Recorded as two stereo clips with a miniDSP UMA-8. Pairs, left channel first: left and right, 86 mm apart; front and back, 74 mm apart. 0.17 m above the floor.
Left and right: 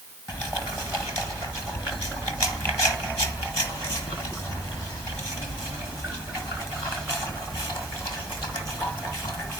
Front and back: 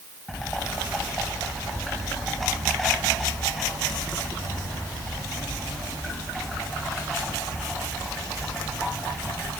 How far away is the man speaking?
I don't hear a man speaking.